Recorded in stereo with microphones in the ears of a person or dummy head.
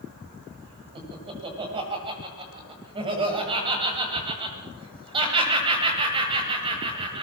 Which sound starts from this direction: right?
Laughter, at 0.9 s.